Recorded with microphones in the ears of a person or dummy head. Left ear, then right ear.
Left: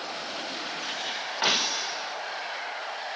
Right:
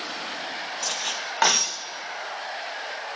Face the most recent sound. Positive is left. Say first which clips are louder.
# right 6 dB
turn(degrees=-30)  # may be behind; listen again after turning